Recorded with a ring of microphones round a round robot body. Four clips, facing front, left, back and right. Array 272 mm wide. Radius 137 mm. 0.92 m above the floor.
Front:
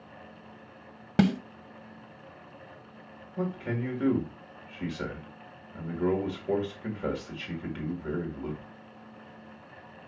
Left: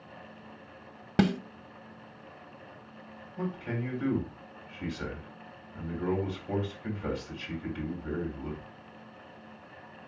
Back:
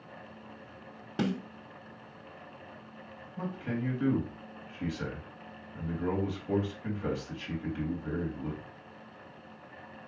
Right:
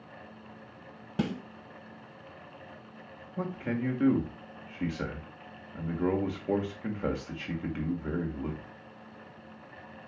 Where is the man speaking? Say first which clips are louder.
Right 2 dB, front 3 dB; 60° right, 1.9 m.